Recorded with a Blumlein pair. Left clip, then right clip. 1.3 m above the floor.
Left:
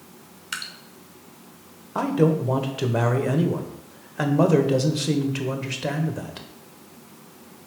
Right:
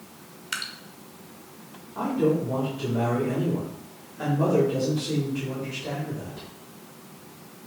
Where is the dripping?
Straight ahead, 0.7 m.